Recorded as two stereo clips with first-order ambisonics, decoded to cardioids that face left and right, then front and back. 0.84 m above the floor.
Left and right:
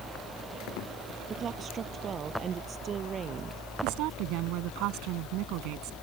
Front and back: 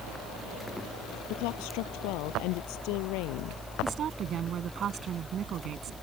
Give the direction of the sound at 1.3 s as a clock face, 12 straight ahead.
1 o'clock.